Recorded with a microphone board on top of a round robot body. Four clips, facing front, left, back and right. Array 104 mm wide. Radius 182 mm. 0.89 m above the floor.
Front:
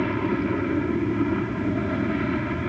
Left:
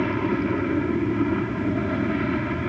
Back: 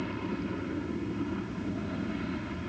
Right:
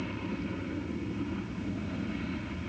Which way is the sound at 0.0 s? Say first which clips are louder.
Left 13 dB, front 10 dB; 55° left.